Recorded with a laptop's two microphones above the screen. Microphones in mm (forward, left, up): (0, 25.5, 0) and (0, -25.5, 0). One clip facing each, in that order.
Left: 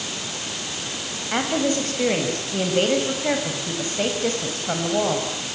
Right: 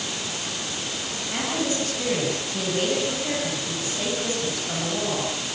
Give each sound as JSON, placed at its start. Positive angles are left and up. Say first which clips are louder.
{"t": 1.3, "sound": "a woman speaking", "louder": "left 5 dB", "side_deg": 45, "distance_m": 6.0}